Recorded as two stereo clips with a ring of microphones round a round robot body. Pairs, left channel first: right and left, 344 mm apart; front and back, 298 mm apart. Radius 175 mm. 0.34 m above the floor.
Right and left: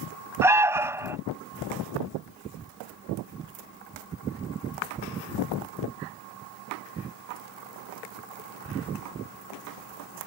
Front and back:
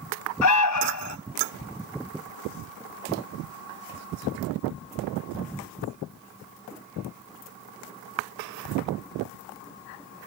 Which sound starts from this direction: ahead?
An alarm, at 0.4 s.